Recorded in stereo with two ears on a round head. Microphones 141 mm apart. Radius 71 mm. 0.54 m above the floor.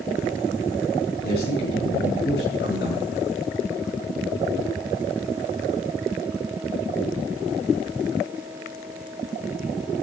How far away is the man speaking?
About 5 m.